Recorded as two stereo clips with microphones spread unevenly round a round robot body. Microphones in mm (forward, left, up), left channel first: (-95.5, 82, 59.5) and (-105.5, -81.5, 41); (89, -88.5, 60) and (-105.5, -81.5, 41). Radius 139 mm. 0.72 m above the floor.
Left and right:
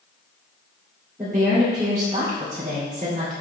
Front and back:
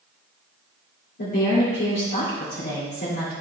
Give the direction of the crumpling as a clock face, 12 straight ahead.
No crumpling in this recording.